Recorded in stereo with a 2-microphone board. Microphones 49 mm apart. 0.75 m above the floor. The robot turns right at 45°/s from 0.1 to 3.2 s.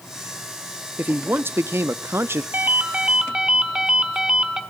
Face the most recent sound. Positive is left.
turn(degrees=-15)